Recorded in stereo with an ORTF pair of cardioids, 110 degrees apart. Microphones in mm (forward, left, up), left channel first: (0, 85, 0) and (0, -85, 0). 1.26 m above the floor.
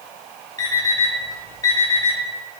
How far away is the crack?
No crack in this recording.